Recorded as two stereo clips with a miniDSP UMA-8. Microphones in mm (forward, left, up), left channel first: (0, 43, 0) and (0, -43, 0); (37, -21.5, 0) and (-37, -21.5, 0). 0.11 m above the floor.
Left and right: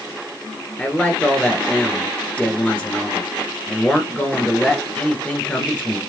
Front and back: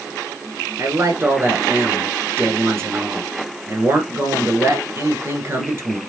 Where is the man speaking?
160° left, 1.4 m.